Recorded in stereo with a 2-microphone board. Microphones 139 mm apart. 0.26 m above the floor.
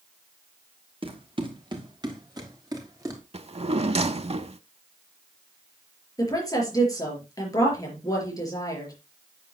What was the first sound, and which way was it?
Running footsteps, 40° right (ahead or behind).